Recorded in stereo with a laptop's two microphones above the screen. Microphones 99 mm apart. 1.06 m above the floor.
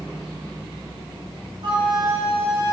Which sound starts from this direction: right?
A flute, at 1.6 s.